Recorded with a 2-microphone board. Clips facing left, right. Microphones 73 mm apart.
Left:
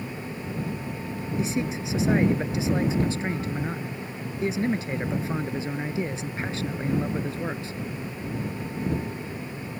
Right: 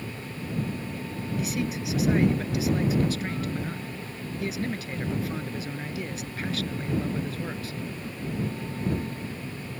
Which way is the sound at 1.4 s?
25° left (ahead or behind).